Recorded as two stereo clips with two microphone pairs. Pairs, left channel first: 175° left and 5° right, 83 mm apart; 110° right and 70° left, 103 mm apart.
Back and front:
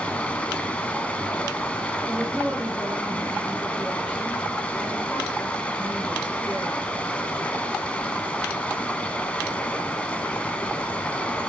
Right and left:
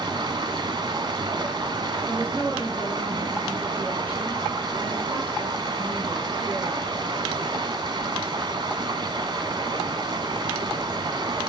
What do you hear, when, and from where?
0.0 s running water: 105° left, 0.8 m
2.0 s a woman speaking: 100° left, 6 m